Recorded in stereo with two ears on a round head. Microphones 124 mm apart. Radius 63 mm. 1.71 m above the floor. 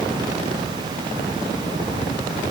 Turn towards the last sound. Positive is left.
No sound to turn to.